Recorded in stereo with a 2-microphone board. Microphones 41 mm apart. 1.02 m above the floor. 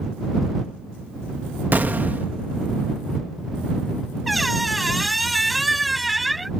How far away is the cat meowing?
I don't hear a cat meowing.